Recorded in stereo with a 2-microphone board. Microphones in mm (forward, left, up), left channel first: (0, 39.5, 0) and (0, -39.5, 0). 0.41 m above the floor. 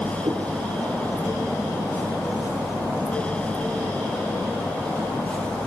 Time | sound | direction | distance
0.2 | a cat meowing | 65° right (ahead or behind) | 2.5 m